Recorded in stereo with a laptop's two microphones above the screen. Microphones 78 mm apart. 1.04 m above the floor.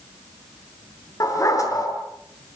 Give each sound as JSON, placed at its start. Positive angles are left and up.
{"t": 1.2, "sound": "a dog barking", "side_deg": 45, "distance_m": 6.5}